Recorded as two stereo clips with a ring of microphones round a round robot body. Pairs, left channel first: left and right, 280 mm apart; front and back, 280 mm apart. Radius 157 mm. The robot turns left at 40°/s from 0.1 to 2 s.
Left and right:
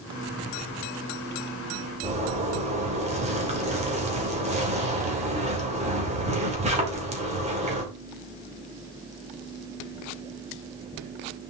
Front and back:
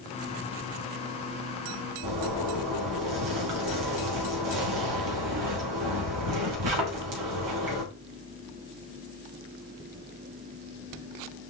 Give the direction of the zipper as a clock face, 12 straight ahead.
5 o'clock.